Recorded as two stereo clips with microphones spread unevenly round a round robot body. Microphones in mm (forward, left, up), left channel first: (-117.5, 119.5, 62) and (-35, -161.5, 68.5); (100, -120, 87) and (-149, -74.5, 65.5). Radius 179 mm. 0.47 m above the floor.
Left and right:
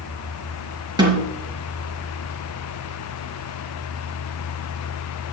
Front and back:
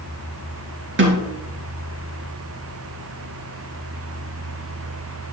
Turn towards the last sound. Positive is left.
turn(degrees=-150)